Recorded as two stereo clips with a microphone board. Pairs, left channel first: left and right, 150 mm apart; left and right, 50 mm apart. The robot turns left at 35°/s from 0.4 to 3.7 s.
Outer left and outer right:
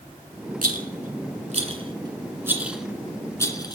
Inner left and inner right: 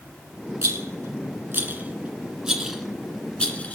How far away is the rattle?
About 1.7 m.